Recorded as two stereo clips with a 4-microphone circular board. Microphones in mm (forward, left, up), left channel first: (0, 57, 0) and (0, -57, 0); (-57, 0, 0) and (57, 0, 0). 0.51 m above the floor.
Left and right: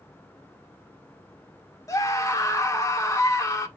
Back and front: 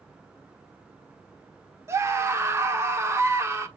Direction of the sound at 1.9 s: 50° left.